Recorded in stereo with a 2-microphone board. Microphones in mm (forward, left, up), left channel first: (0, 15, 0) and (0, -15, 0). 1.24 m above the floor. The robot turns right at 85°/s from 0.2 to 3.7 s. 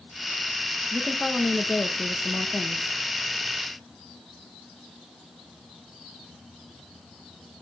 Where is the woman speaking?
Straight ahead, 1.2 m; by 2.9 s 175° left, 1.2 m.